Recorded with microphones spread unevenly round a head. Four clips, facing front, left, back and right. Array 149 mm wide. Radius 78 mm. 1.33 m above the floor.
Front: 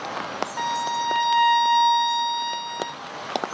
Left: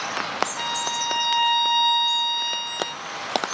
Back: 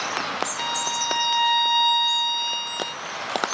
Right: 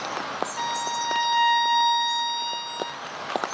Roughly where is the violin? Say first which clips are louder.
Right 1 dB, front 3 dB; ahead.